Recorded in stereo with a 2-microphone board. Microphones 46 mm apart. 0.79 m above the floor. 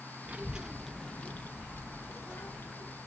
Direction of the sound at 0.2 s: 35° right (ahead or behind).